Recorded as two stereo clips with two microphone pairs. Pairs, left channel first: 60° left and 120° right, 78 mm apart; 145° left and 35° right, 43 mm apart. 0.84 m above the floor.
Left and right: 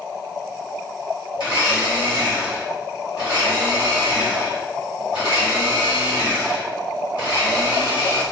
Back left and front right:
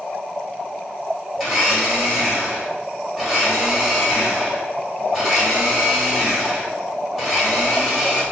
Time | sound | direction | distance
1.4 | a blender | 55° left | 1.6 m